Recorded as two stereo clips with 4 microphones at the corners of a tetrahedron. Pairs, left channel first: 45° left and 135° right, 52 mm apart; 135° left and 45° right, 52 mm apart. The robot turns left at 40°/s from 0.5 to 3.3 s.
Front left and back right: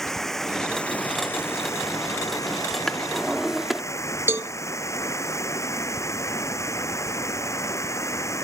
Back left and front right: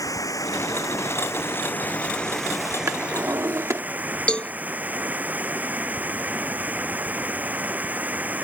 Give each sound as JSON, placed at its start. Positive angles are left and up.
{"t": 0.0, "sound": "running water", "azimuth_deg": 130}
{"t": 2.9, "sound": "a drawer", "azimuth_deg": -35}
{"t": 4.3, "sound": "a cowbell", "azimuth_deg": -160}